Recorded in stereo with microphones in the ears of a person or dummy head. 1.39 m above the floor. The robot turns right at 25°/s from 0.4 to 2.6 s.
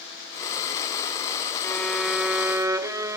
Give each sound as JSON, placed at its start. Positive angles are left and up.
{"t": 1.6, "sound": "a violin", "side_deg": 5, "distance_m": 0.8}